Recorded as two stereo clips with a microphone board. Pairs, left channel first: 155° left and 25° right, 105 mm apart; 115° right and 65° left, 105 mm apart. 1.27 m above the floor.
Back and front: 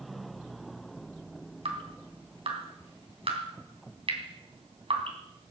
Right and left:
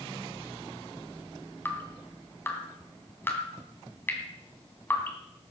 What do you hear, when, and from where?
1.6 s dripping: 45° right, 2.5 m